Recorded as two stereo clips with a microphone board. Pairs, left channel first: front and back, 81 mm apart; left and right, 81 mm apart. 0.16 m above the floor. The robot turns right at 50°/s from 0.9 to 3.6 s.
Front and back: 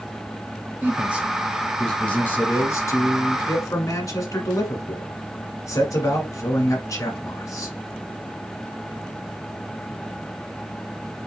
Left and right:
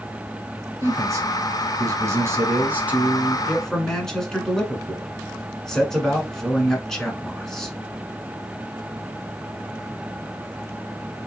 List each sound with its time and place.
0.8 s a man speaking: 125° right, 1.4 m; by 7.8 s 10° left, 1.4 m